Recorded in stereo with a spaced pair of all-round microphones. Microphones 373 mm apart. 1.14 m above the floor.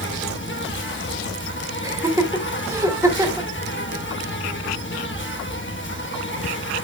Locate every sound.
0.0 s an insect: 30° left (ahead or behind), 1.1 m
1.8 s laughter: 10° right (ahead or behind), 1.7 m